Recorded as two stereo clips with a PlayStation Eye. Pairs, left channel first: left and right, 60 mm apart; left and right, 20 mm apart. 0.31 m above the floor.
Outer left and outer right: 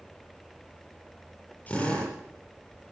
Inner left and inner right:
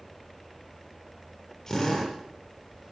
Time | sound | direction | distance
1.7 | a drill | 25° left (ahead or behind) | 9 m